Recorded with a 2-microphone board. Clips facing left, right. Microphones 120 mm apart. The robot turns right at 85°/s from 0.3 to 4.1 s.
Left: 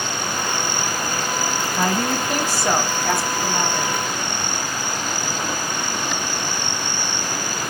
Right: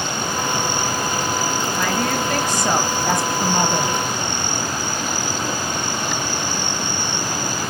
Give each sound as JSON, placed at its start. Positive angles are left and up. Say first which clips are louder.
{"t": 1.8, "sound": "a woman speaking", "louder": "left 2 dB", "side_deg": 30, "distance_m": 1.1}